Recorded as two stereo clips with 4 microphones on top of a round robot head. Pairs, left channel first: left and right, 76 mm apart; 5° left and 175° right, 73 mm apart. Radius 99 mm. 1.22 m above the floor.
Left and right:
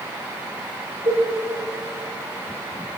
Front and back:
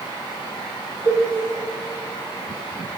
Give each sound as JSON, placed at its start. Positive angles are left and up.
{"t": 1.1, "sound": "a cowbell", "azimuth_deg": -130, "distance_m": 0.7}